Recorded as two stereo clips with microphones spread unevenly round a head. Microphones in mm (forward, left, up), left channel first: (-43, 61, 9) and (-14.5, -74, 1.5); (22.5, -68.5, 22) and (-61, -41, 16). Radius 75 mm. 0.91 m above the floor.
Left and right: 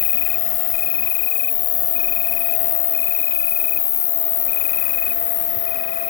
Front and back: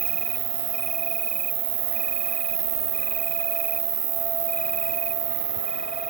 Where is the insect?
120° left.